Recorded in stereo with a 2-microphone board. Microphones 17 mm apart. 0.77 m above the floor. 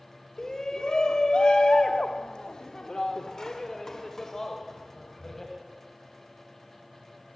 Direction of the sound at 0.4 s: 35° left (ahead or behind).